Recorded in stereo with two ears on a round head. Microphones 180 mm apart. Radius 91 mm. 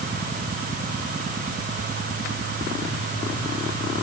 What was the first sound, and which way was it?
Only background noise.